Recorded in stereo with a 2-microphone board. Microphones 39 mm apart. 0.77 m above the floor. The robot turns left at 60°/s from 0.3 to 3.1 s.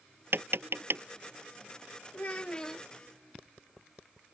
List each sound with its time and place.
0.3 s tapping: 70° right (ahead or behind); by 1.0 s 65° right (ahead or behind)
2.1 s a child speaking: 50° left; by 2.9 s 5° left